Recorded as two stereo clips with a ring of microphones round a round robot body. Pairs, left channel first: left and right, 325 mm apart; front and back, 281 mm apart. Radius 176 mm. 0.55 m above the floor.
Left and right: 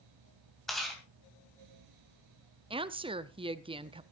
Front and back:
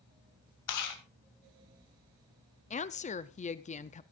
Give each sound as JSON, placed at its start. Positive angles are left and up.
{"t": 0.7, "sound": "chewing", "azimuth_deg": 0, "distance_m": 3.0}
{"t": 2.7, "sound": "a woman speaking", "azimuth_deg": -35, "distance_m": 0.6}